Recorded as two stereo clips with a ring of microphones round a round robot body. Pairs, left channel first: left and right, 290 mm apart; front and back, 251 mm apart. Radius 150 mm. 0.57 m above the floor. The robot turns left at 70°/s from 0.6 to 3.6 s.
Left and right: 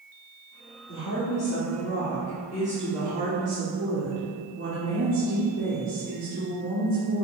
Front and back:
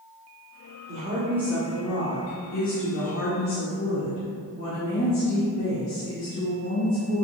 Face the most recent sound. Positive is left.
turn(degrees=-55)